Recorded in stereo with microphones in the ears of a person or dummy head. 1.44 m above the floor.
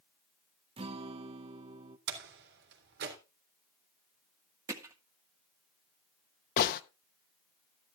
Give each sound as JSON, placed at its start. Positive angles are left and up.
{"t": 0.8, "sound": "a guitar", "side_deg": -30, "distance_m": 0.6}
{"t": 2.1, "sound": "a door slam", "side_deg": -75, "distance_m": 3.5}
{"t": 4.7, "sound": "hammering", "side_deg": -25, "distance_m": 1.5}
{"t": 6.6, "sound": "a gunshot", "side_deg": 50, "distance_m": 1.0}